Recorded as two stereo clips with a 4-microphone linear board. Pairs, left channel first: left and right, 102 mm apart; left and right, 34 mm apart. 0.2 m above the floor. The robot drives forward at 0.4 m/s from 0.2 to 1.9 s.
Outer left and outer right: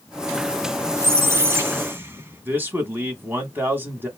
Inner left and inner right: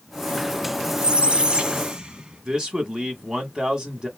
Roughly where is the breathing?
No breathing in this recording.